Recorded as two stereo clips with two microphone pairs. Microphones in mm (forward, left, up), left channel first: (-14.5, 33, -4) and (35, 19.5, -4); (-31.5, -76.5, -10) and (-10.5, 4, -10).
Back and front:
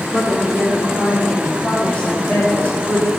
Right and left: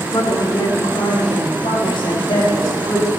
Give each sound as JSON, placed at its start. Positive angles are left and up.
{"t": 0.1, "sound": "a woman speaking", "azimuth_deg": -95, "distance_m": 1.5}